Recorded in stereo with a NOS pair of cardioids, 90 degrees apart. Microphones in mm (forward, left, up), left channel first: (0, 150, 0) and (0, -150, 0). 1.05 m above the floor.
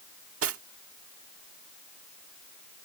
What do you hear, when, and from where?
0.4 s cutlery clinking: 50° right